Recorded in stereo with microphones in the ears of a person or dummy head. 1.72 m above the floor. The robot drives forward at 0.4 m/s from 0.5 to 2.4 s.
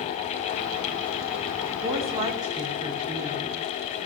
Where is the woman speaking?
20° right (ahead or behind), 3 m; by 3.6 s 15° right (ahead or behind), 3.5 m.